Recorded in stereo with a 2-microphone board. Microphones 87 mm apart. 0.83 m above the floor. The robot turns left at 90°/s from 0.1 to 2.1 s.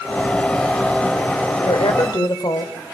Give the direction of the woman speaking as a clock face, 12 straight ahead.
9 o'clock.